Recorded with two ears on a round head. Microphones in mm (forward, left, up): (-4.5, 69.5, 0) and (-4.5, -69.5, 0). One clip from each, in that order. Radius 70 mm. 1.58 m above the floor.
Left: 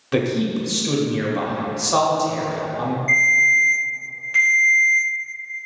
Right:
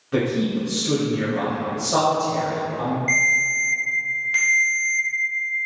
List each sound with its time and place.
0.1 s a man speaking: 75° left (ahead or behind), 0.7 m
3.1 s a ringtone: 15° right (ahead or behind), 0.6 m